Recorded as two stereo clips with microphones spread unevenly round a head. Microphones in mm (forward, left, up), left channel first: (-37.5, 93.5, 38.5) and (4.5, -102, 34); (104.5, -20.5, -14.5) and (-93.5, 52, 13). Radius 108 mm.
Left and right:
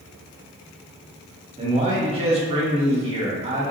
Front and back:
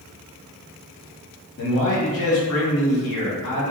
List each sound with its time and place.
1.6 s a man speaking: 20° right, 1.3 m